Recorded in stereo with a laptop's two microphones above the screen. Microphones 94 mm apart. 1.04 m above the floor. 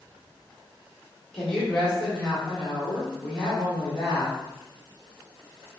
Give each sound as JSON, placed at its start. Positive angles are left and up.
{"t": 1.3, "sound": "a woman speaking", "side_deg": 10, "distance_m": 1.5}